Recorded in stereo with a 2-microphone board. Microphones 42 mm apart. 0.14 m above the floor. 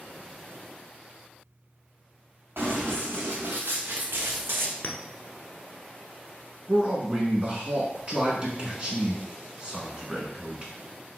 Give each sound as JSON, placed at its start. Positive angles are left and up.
{"t": 2.6, "sound": "running footsteps", "side_deg": -85, "distance_m": 1.7}
{"t": 4.8, "sound": "a clink", "side_deg": 45, "distance_m": 0.9}
{"t": 6.7, "sound": "a man speaking", "side_deg": -25, "distance_m": 1.4}